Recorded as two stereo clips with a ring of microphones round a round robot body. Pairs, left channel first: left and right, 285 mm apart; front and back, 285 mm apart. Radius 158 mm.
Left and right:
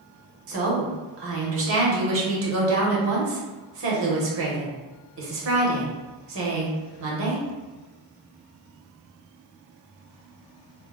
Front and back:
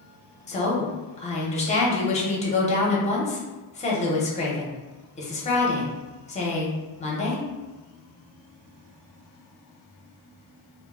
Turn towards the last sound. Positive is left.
turn(degrees=-60)